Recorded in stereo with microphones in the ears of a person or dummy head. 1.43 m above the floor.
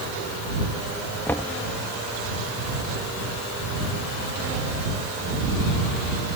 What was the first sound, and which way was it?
Knocking, 10° left (ahead or behind).